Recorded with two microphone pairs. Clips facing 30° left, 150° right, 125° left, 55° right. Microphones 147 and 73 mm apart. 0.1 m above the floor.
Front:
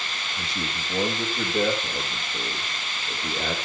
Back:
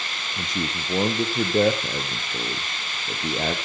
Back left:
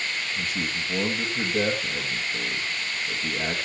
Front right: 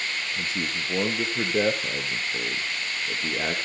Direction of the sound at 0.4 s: 115° right.